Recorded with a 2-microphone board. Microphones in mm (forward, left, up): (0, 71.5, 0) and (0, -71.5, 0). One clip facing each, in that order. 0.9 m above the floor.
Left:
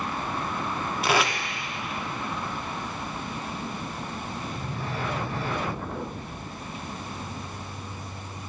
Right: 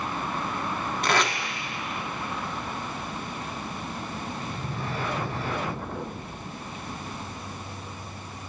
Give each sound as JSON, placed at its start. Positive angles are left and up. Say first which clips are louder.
{"t": 1.0, "sound": "tape being pulled", "louder": "left 1 dB", "side_deg": 5, "distance_m": 0.8}